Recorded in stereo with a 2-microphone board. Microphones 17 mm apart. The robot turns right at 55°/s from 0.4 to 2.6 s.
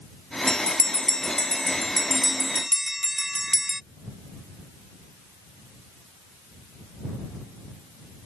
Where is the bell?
55° left (ahead or behind); by 3.8 s 20° right (ahead or behind).